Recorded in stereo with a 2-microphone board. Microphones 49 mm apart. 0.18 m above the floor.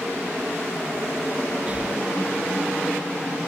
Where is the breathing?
25° right (ahead or behind), 0.6 m.